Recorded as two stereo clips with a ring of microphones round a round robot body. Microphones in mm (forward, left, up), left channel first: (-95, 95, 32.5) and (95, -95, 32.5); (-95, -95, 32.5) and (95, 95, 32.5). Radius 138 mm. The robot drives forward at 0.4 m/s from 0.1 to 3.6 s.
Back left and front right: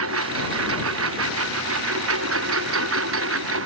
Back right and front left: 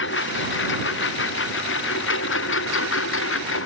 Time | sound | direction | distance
0.0 | a lawn mower | 85° right | ?